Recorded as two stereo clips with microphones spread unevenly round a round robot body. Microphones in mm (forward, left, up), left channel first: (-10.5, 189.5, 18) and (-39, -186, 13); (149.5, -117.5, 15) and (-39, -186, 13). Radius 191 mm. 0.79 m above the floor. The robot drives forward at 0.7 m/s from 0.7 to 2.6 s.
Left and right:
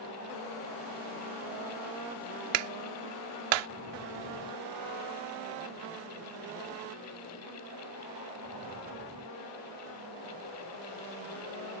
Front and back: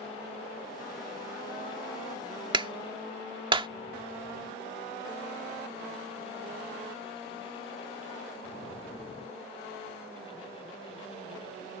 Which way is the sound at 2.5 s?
95° right.